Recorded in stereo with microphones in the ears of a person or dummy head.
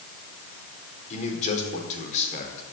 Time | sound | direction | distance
1.1 | a man speaking | 40° left (ahead or behind) | 4.5 m